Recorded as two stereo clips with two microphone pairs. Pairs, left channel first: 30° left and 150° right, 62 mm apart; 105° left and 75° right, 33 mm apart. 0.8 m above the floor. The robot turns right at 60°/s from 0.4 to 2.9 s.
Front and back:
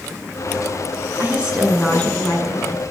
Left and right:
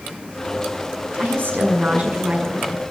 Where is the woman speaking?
90° right, 7.5 m; by 2.8 s 5° left, 7.5 m.